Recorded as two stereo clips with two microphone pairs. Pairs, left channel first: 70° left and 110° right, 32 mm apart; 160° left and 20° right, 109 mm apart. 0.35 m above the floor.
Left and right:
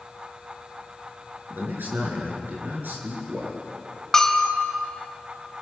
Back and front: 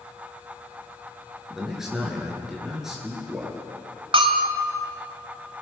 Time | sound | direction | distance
1.5 | a man speaking | 105° right | 6.5 m
4.1 | a bell | 5° right | 1.8 m